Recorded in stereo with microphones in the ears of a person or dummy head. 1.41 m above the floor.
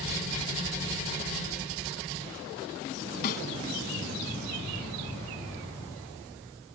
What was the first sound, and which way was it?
A snare drum, 50° left (ahead or behind).